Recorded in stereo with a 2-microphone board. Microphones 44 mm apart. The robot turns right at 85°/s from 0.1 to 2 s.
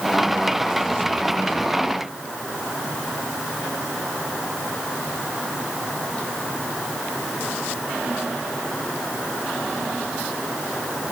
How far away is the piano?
I don't hear a piano.